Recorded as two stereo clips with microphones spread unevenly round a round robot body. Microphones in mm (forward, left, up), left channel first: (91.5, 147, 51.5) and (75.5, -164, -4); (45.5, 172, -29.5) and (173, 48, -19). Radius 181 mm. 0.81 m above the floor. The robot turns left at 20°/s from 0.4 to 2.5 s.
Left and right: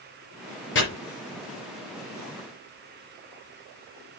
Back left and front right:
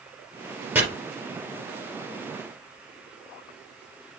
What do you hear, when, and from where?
0.8 s chopping: 35° left, 4 m